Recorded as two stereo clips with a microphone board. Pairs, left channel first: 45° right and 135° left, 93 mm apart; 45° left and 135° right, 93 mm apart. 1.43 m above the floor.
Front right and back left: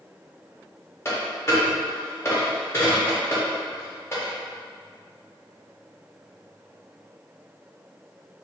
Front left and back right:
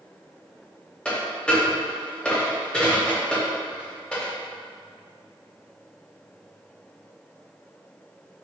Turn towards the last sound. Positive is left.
turn(degrees=-25)